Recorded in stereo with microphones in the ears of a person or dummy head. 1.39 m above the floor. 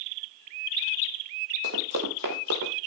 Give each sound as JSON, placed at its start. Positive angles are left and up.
{"t": 1.6, "sound": "running footsteps", "side_deg": -60, "distance_m": 3.0}